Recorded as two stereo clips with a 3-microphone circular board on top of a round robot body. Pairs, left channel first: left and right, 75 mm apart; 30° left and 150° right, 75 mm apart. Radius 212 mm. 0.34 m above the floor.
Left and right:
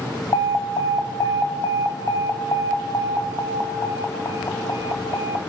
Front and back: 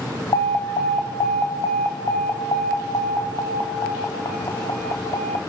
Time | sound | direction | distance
0.3 | an alarm | 50° left | 1.8 m